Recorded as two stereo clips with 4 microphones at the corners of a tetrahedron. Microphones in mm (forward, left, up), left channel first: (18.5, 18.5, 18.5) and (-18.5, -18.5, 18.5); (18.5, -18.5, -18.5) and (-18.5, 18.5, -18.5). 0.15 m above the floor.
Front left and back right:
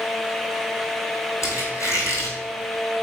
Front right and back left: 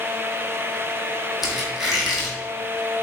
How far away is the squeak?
About 1.2 m.